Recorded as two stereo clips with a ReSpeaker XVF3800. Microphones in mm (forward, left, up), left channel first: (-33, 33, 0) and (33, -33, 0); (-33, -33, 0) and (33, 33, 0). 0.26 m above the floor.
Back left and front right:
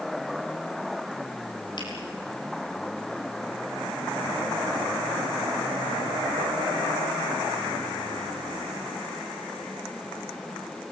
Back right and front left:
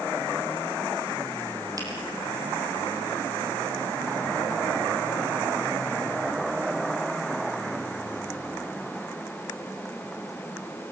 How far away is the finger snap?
About 6.5 m.